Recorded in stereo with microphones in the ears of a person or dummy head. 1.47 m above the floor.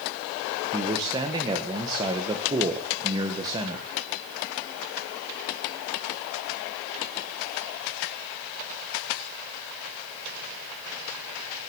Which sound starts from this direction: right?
A man speaking, at 0.7 s.